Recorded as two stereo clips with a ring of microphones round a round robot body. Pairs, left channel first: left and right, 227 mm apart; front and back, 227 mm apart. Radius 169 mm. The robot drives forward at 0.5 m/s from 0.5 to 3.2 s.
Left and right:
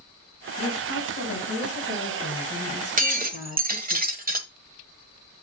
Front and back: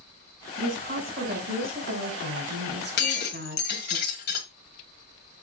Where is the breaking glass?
40° right, 1.5 m; by 4.5 s 45° right, 1.4 m.